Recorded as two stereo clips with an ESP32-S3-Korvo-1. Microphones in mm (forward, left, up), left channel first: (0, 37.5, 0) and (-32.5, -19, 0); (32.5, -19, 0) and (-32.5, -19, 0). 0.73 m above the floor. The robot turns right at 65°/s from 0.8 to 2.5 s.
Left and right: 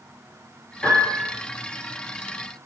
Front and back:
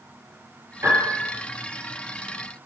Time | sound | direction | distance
0.8 | a piano | 135° left | 4.5 m